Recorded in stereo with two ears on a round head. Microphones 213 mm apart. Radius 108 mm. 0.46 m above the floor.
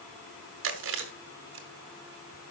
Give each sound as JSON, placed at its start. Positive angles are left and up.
{"t": 0.6, "sound": "chewing", "side_deg": -55, "distance_m": 1.8}